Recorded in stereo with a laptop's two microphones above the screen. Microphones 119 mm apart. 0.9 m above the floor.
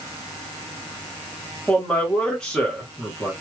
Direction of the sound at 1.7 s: 5° left (ahead or behind).